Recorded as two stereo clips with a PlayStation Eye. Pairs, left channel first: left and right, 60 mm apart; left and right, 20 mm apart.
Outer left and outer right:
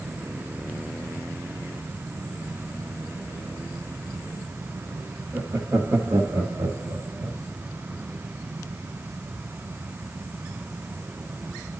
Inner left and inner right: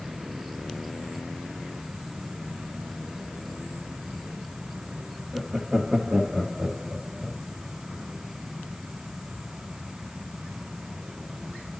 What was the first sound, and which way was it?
Laughter, 40° right (ahead or behind).